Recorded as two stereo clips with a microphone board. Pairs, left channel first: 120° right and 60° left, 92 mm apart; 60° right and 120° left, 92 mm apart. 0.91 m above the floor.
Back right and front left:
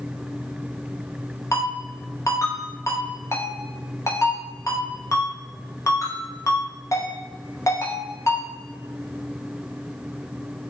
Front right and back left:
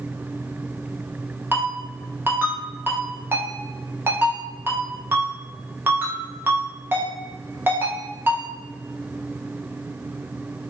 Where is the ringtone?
175° right, 0.6 m.